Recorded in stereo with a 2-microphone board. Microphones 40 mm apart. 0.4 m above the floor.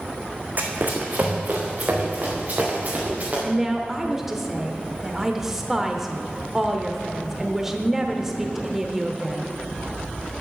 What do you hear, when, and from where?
0.6 s running footsteps: 40° right (ahead or behind), 1.8 m; by 3.3 s 35° right (ahead or behind), 4 m
3.4 s a woman speaking: 10° right (ahead or behind), 0.8 m